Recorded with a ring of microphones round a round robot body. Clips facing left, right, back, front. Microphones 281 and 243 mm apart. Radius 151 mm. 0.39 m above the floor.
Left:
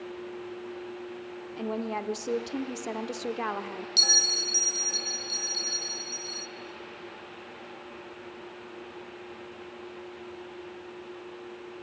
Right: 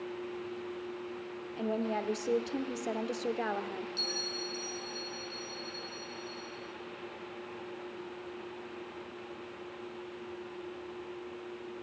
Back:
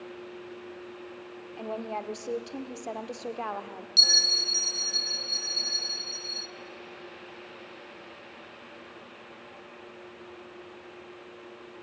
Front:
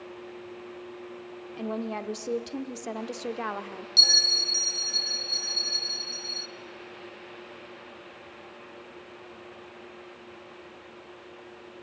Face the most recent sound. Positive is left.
turn(degrees=95)